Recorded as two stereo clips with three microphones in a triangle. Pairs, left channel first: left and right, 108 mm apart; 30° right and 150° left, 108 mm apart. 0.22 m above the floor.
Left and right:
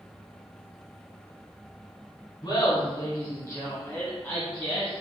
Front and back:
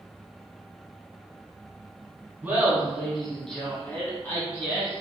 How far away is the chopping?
I don't hear chopping.